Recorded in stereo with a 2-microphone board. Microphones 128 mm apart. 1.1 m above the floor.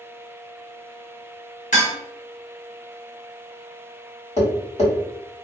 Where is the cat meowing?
I don't hear a cat meowing.